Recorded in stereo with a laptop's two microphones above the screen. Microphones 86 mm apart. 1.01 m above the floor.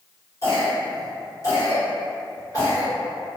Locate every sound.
0.4 s a cough: 45° left (ahead or behind), 1.5 m